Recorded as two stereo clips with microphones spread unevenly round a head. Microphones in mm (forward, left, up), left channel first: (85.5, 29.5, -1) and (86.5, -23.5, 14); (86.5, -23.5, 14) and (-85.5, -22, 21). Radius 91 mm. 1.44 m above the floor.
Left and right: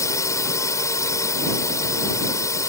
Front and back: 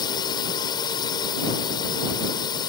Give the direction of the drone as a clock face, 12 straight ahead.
10 o'clock.